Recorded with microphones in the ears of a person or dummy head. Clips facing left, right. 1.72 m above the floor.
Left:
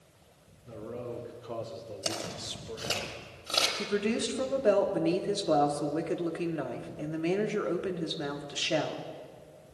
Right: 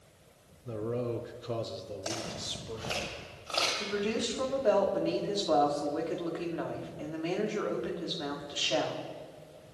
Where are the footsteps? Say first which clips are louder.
Left 1 dB; 45° left (ahead or behind), 4.5 m; by 3.7 s 20° left (ahead or behind), 3 m.